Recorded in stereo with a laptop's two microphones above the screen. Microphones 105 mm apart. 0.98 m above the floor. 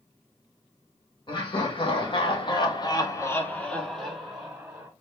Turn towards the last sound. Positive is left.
turn(degrees=-15)  # may be behind; listen again after turning